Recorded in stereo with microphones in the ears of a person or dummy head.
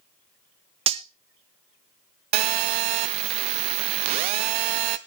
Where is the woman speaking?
No woman speaking in this recording.